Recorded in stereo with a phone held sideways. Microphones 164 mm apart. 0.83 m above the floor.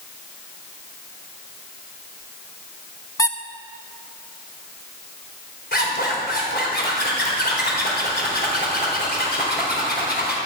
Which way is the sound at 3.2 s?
20° left (ahead or behind).